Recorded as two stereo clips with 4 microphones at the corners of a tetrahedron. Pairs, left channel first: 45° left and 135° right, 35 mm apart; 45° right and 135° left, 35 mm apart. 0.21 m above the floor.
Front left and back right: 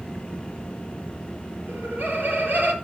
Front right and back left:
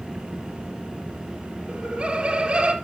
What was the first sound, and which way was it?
Laughter, 160° right.